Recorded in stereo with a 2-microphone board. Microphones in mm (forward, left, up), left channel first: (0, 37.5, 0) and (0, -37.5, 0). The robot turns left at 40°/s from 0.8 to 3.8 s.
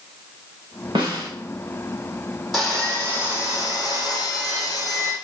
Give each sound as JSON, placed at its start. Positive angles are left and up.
{"t": 0.9, "sound": "a snare drum", "side_deg": -85, "distance_m": 9.5}
{"t": 2.5, "sound": "sawing", "azimuth_deg": 180, "distance_m": 5.5}